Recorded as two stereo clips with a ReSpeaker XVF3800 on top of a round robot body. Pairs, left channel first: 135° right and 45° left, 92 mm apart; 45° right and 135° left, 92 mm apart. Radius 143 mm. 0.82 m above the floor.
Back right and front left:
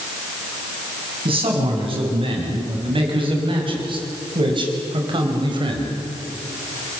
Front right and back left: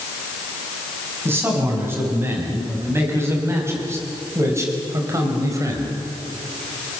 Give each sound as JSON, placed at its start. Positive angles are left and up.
{"t": 1.2, "sound": "a man speaking", "azimuth_deg": 70, "distance_m": 7.0}